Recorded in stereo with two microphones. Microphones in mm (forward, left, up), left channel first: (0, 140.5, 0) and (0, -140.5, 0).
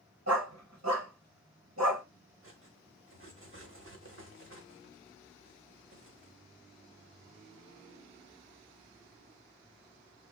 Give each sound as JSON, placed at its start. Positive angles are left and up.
{"t": 0.3, "sound": "a dog barking", "side_deg": -70, "distance_m": 1.7}
{"t": 2.4, "sound": "cutlery clinking", "side_deg": -50, "distance_m": 0.9}